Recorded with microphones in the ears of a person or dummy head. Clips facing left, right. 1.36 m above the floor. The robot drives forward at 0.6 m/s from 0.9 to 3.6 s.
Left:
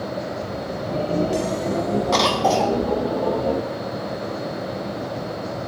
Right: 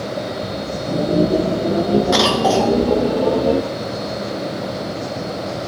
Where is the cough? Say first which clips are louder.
Right 4 dB; 5° right (ahead or behind), 0.5 m; by 2.8 s centre (ahead or behind), 0.8 m.